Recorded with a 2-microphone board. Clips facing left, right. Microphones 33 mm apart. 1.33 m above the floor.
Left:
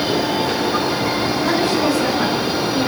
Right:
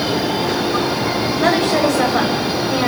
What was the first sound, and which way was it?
A woman speaking, 85° right.